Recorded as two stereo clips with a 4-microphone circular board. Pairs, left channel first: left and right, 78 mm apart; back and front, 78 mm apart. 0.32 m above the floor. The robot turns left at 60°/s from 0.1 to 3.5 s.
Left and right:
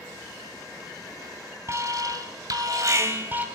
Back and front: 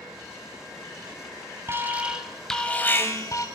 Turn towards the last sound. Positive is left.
turn(degrees=-160)